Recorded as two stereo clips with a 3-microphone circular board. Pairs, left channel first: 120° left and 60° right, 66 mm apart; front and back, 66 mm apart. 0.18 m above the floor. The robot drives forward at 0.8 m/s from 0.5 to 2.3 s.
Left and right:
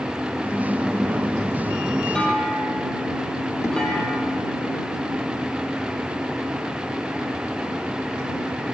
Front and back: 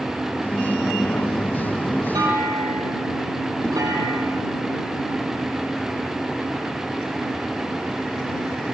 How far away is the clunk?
About 5.5 m.